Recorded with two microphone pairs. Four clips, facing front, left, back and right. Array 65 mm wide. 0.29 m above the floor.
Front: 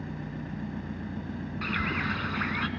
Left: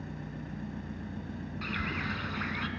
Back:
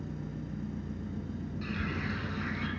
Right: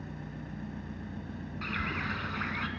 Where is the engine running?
5° right, 1.7 m.